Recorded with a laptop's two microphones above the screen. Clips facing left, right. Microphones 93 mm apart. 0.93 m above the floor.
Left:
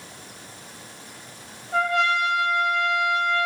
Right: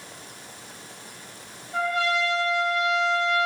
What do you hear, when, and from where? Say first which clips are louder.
1.7 s a trumpet: left 3 dB; 65° left (ahead or behind), 1.1 m